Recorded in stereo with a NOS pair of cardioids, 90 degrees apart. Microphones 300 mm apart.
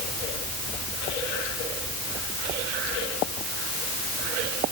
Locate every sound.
Only background noise.